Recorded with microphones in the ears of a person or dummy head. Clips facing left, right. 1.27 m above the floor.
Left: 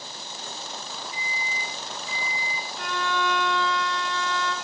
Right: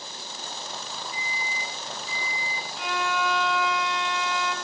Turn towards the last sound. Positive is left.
turn(degrees=0)  # may be behind; listen again after turning